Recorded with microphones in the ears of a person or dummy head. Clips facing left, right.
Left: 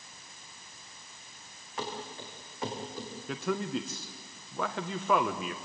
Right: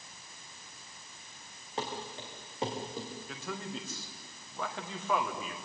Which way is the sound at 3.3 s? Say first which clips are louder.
Left 11 dB; 45° left (ahead or behind).